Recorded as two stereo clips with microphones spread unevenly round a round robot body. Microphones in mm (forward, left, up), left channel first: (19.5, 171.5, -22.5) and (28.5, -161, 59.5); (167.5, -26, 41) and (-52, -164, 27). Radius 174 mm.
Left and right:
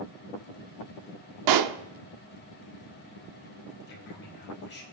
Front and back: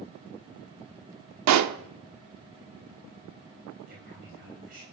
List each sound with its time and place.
1.5 s a pop: 125° right, 0.7 m
3.9 s a man speaking: 150° left, 4 m